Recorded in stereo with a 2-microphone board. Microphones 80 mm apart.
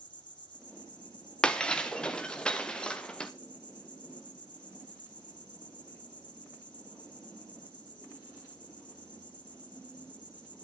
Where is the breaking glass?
10° left (ahead or behind), 1.6 m.